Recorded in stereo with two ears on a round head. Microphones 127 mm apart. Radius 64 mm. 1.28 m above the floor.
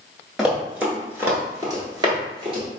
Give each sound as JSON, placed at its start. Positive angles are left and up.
{"t": 0.4, "sound": "running footsteps", "side_deg": 0, "distance_m": 1.4}